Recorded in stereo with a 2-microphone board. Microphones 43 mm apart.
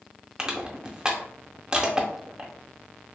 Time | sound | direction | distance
0.4 | crushing | 15° right (ahead or behind) | 0.5 m